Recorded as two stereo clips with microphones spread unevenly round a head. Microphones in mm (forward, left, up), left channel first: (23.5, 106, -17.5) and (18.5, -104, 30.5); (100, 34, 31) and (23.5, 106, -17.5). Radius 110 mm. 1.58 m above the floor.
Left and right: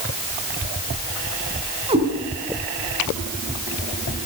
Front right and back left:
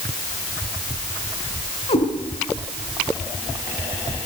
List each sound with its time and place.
1.9 s a cat meowing: 30° right, 6.5 m